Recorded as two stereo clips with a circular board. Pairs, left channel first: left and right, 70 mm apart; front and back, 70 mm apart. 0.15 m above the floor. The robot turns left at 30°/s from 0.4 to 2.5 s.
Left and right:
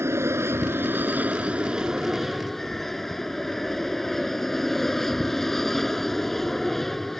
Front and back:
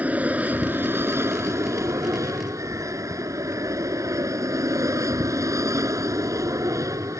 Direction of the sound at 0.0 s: 120° right.